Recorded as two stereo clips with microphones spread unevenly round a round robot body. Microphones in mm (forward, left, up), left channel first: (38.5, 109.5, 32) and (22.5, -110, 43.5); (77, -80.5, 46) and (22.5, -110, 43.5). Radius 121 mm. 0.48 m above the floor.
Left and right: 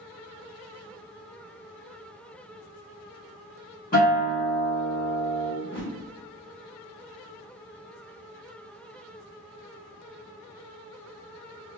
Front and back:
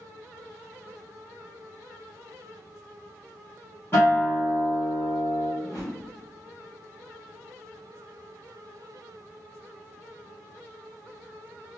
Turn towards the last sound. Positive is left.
turn(degrees=55)